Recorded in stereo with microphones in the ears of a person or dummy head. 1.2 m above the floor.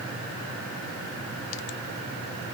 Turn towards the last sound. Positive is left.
No sound to turn to.